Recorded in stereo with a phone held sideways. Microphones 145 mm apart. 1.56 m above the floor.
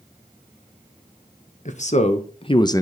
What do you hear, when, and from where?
1.6 s a man speaking: 60° left (ahead or behind), 1.1 m; by 2.8 s 20° left (ahead or behind), 0.6 m